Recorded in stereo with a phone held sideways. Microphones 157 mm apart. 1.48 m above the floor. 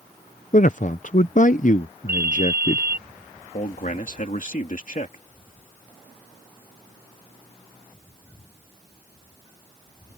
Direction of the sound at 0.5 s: 55° left (ahead or behind).